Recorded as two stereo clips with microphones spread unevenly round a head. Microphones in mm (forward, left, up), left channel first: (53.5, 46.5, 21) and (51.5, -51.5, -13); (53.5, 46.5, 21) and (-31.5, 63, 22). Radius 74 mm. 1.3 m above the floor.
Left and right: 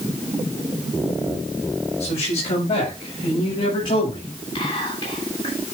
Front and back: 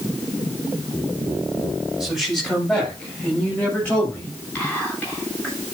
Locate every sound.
2.0 s a man speaking: 80° left, 7.5 m; by 4.3 s 60° left, 7.5 m
4.5 s whispering: 65° left, 7.5 m